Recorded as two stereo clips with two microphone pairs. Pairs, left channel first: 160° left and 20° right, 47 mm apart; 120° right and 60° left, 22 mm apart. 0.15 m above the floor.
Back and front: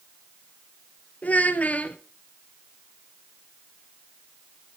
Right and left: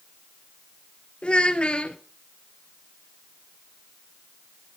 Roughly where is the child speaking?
Behind right.